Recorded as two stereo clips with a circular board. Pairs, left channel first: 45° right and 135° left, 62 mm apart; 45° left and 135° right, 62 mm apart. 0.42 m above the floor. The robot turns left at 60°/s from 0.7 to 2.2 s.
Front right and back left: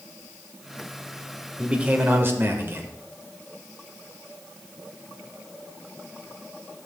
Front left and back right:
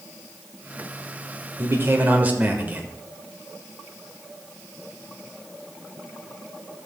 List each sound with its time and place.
1.6 s a man speaking: 150° right, 1.1 m; by 2.9 s 175° left, 1.1 m